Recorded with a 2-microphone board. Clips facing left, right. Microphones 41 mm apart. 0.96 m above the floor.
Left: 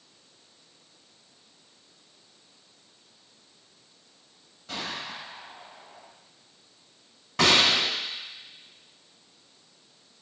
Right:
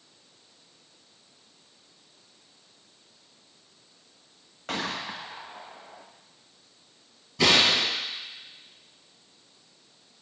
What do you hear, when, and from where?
4.7 s a gunshot: 60° right (ahead or behind), 1.3 m
7.4 s a gunshot: 75° left (ahead or behind), 3.5 m